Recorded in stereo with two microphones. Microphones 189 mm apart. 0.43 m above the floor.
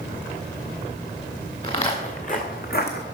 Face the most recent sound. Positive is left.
turn(degrees=65)  # may be behind; listen again after turning